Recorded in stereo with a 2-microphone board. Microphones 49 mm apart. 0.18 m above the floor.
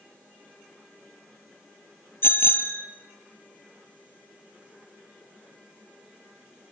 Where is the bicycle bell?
45° left (ahead or behind), 2.5 m.